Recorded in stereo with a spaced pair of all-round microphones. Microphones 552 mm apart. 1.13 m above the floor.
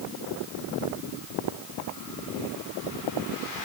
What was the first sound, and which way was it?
Only background noise.